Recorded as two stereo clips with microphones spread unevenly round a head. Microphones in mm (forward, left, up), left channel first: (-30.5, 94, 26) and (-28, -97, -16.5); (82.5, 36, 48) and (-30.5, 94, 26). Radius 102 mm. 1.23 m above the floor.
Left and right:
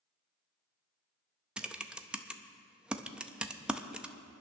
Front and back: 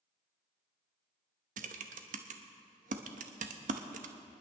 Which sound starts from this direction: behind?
Typing on a keyboard, at 1.6 s.